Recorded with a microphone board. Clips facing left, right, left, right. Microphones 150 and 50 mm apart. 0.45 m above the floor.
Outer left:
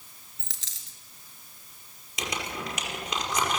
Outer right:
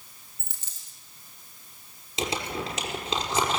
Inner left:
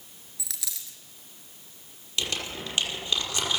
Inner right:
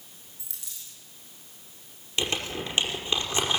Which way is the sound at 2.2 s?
25° right (ahead or behind).